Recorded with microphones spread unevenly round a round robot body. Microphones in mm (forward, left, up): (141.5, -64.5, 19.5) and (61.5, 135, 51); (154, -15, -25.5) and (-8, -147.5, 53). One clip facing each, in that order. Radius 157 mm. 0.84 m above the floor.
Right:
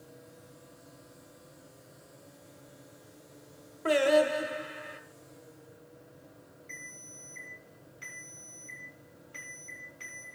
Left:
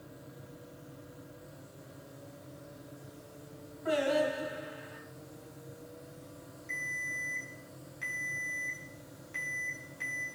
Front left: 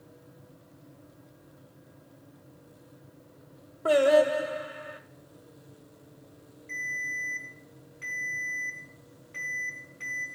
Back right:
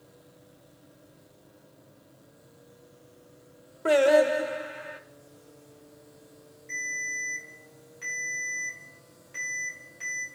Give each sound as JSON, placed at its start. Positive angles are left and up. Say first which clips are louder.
{"t": 3.9, "sound": "singing", "louder": "right 5 dB, back right 1 dB", "azimuth_deg": -85, "distance_m": 0.9}
{"t": 6.7, "sound": "a ringtone", "louder": "left 4 dB, back right 2 dB", "azimuth_deg": 160, "distance_m": 4.0}